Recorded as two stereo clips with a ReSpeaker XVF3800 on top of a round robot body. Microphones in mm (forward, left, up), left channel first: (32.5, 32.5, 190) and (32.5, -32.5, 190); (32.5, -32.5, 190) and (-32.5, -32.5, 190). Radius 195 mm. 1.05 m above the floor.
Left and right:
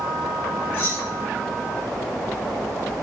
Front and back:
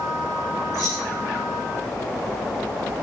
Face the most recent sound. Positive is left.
turn(degrees=40)